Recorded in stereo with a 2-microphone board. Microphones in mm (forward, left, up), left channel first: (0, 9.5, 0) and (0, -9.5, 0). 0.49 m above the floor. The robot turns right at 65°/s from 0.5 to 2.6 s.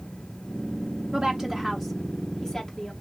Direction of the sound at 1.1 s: 30° right (ahead or behind).